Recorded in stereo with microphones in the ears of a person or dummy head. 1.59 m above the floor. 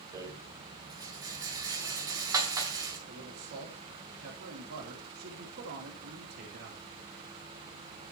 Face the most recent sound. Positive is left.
turn(degrees=-50)  # may be behind; listen again after turning